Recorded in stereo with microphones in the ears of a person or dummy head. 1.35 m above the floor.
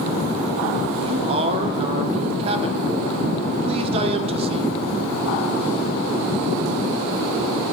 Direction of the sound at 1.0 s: 30° right (ahead or behind).